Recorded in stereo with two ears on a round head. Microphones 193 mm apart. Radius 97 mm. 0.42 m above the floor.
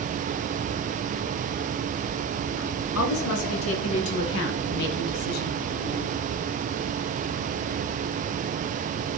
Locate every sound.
3.0 s a woman speaking: 75° left (ahead or behind), 5 m; by 5.6 s 40° left (ahead or behind), 2 m